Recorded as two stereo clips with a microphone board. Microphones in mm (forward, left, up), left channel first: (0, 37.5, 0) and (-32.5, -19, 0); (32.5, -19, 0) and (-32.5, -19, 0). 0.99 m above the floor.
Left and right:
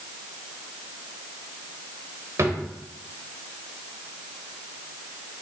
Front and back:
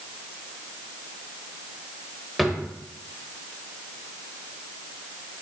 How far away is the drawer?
About 1.2 m.